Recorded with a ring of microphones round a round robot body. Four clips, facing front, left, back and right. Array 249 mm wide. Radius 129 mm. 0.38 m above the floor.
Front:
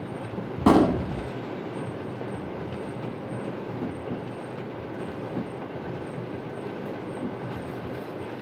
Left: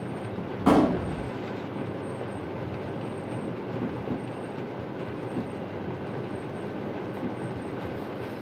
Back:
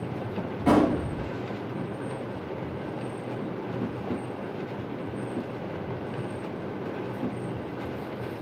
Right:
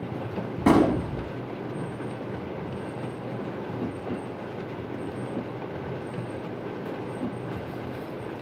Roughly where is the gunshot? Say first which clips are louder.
Right 1 dB, front 3 dB; ahead right.